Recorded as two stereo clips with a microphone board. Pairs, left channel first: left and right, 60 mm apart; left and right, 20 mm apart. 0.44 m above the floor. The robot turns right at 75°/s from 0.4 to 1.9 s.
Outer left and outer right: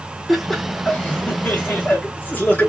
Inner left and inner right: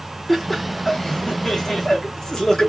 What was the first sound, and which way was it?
Laughter, straight ahead.